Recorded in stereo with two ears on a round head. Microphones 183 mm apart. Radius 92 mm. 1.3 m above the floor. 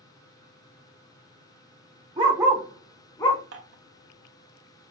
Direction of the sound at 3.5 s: 60° right (ahead or behind).